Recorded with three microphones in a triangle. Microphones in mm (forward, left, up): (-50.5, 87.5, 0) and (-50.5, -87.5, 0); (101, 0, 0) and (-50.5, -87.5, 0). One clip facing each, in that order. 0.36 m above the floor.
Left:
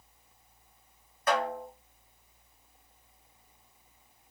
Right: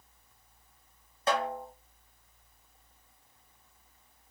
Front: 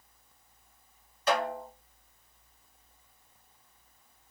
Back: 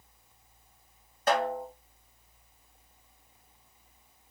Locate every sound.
1.3 s a snare drum: 145° right, 1.2 m